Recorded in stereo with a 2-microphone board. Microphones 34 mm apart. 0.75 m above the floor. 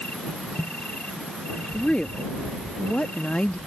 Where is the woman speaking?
30° left (ahead or behind).